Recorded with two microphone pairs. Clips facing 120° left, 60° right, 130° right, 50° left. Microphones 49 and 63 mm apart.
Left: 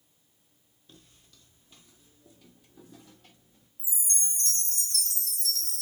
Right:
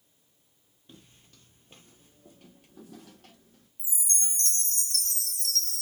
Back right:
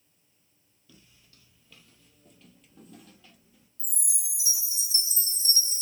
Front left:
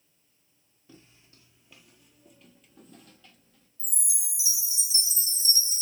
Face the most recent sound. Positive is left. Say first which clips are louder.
# right 1 dB, front left 1 dB
turn(degrees=-90)